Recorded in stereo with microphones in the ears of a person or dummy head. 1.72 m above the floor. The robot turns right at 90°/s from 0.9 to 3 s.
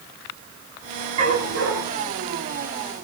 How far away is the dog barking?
About 8.5 m.